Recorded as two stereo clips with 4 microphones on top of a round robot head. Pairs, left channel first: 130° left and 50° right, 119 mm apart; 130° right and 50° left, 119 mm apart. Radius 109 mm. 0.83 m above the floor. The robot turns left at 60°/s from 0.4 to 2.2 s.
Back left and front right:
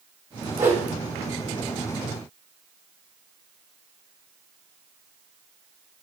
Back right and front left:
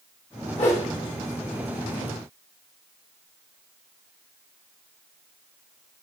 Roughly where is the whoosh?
Right.